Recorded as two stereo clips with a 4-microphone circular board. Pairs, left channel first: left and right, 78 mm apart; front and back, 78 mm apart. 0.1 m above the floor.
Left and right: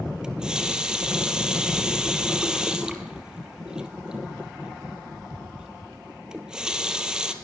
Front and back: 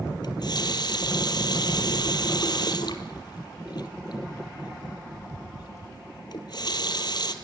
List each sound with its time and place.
0.2 s a running tap: 10° right, 1.8 m